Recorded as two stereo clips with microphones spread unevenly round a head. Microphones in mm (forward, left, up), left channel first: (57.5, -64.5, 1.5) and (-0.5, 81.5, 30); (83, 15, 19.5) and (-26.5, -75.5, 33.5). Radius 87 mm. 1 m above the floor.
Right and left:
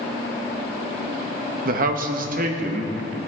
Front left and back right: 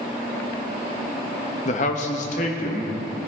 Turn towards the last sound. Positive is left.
turn(degrees=75)